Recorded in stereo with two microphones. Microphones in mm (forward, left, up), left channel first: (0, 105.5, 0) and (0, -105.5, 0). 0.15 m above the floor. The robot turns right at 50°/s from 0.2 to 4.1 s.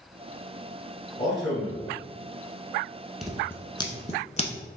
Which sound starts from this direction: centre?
Scissors, at 3.2 s.